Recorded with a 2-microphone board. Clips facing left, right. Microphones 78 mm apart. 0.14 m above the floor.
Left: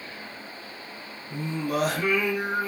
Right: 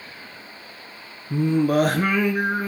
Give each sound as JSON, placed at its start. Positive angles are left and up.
{"t": 1.3, "sound": "singing", "side_deg": -50, "distance_m": 2.5}